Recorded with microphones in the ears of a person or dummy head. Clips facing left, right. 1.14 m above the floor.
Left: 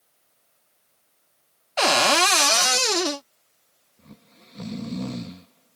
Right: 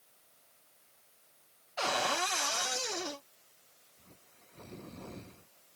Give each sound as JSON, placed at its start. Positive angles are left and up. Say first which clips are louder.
{"t": 1.8, "sound": "a cupboard door", "louder": "left 12 dB", "side_deg": 70}
{"t": 4.0, "sound": "snoring", "louder": "left 13 dB", "side_deg": 70}